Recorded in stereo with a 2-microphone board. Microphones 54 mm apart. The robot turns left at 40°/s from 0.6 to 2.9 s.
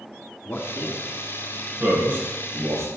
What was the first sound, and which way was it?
A man speaking, 35° left (ahead or behind).